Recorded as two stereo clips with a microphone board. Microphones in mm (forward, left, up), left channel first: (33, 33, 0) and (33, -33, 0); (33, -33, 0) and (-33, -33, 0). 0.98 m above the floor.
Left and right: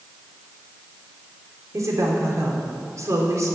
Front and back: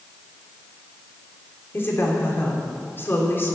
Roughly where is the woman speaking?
Ahead right.